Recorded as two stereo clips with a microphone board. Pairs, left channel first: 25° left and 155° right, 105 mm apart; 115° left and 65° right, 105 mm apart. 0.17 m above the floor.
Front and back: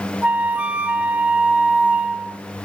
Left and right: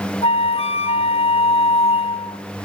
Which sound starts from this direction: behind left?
A flute, at 0.2 s.